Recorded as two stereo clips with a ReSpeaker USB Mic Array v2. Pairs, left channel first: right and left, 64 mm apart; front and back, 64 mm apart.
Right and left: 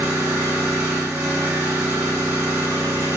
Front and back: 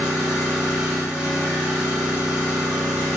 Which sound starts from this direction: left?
An engine running, at 0.0 s.